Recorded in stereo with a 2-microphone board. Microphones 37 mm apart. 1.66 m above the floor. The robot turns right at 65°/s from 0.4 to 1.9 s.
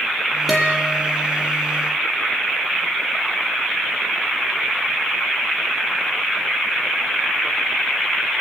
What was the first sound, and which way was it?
A guitar, 175° right.